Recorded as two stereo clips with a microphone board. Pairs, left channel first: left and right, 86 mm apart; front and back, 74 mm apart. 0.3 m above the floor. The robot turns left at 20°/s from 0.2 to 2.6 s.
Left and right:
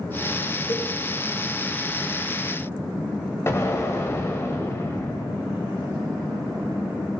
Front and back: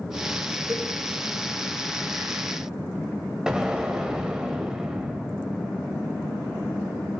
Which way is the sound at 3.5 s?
105° left.